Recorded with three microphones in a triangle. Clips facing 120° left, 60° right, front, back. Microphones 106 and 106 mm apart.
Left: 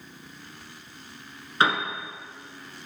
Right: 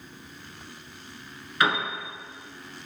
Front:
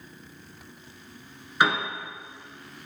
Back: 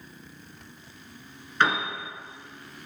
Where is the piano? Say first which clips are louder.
Left 1 dB, front 1 dB; 75° left, 1.6 m.